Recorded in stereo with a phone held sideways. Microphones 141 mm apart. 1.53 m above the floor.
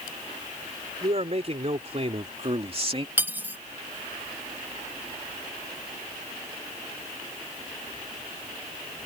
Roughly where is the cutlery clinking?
Centre.